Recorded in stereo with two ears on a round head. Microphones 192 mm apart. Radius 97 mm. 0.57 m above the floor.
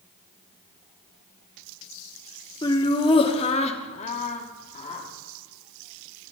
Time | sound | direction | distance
2.6 | laughter | 20° left (ahead or behind) | 1.1 m